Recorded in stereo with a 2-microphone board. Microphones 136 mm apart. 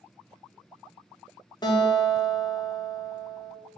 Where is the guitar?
30° left (ahead or behind), 0.7 m.